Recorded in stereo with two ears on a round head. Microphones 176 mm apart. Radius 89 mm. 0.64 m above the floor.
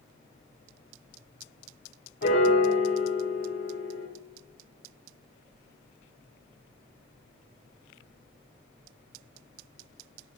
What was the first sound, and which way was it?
A piano, 60° left (ahead or behind).